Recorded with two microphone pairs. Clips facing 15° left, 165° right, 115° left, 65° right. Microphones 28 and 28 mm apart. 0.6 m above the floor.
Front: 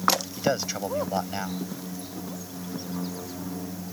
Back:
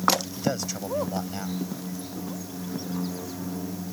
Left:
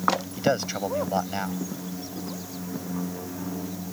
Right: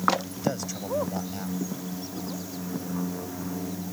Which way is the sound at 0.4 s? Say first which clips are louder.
Front 2 dB, left 5 dB; 75° left.